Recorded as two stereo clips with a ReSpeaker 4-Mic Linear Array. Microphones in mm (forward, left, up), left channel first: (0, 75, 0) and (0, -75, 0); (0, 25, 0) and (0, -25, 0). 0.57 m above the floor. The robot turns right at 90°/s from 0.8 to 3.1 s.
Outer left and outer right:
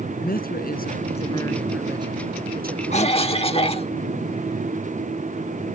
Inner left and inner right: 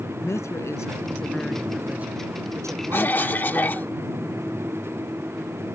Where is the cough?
50° left (ahead or behind); by 3.9 s 40° left (ahead or behind).